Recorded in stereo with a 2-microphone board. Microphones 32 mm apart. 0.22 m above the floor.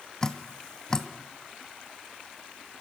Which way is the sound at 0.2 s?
20° left (ahead or behind).